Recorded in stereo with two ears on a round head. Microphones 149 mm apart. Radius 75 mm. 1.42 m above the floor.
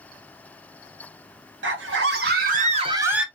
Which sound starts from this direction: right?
A scream, at 1.6 s.